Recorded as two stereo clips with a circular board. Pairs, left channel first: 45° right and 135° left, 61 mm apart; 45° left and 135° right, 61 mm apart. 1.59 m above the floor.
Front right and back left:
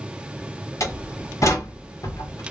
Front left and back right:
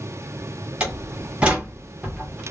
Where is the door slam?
65° right, 1.2 m.